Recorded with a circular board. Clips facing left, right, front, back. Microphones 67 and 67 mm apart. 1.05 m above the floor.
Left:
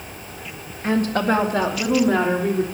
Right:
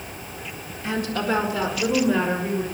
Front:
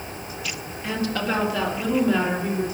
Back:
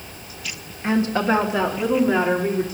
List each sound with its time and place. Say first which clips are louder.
0.8 s a woman speaking: left 5 dB, back 6 dB; 125° left, 1.7 m; by 2.6 s 110° left, 3.5 m